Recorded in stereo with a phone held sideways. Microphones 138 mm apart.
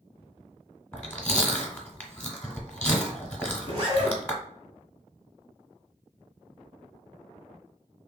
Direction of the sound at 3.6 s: 40° right (ahead or behind).